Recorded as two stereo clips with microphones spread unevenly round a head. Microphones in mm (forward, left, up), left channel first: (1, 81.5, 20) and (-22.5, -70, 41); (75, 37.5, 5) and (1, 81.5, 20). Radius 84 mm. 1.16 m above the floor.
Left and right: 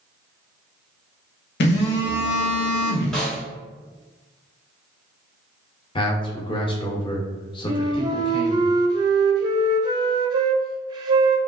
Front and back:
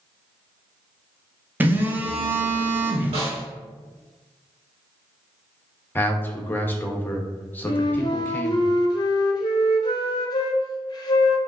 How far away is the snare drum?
About 1.5 m.